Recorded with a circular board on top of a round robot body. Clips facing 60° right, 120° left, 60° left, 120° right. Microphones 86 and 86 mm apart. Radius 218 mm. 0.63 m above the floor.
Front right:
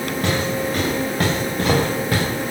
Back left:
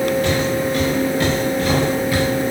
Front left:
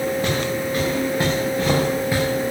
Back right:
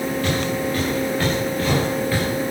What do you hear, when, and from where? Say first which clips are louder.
0.2 s footsteps: back left 3 dB, even; 10° right, 7.5 m; by 2.2 s 15° right, 6 m